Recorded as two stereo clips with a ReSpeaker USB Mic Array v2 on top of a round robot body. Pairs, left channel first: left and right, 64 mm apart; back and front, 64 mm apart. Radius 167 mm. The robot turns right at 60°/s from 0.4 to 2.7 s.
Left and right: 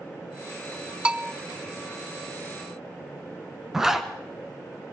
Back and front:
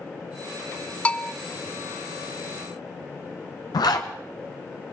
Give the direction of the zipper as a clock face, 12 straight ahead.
6 o'clock.